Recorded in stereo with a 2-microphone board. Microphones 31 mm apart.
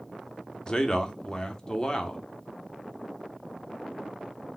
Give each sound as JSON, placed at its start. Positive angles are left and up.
{"t": 0.7, "sound": "a man speaking", "side_deg": 25, "distance_m": 0.7}